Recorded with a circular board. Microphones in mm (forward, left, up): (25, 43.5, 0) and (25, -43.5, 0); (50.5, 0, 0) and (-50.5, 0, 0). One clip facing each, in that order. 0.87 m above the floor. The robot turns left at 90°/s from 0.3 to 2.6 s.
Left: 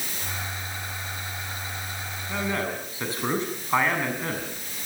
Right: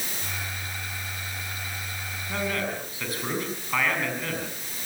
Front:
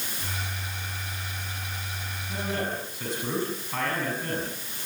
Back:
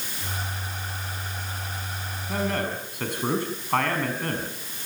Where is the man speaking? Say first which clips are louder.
Left 1 dB, back 3 dB; straight behind, 7 m; by 4.5 s 155° left, 7 m.